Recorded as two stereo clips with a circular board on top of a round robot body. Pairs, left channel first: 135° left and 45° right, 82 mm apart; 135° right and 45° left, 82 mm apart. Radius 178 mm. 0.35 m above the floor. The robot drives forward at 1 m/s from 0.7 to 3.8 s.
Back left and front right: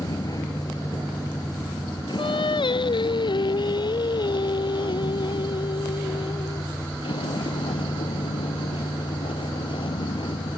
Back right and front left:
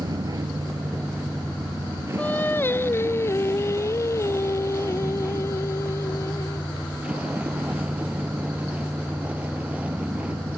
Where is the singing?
155° left; by 6.7 s 165° left.